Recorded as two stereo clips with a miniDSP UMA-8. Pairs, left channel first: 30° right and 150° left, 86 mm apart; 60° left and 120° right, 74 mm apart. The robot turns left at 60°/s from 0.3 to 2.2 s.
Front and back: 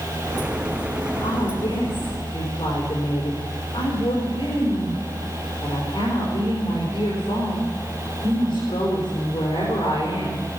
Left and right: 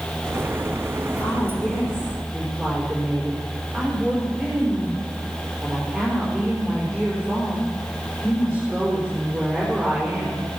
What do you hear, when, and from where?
1.2 s a woman speaking: 5° left, 5 m; by 10.4 s 55° right, 5 m